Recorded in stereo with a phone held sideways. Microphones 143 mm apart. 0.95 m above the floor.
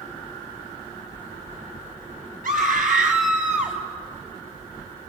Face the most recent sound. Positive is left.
turn(degrees=-65)  # may be behind; listen again after turning